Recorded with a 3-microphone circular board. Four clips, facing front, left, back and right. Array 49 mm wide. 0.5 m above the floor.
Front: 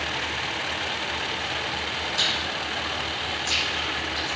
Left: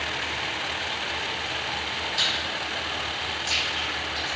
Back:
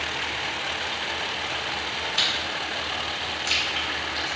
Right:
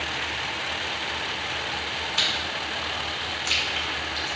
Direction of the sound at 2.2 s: 130° right.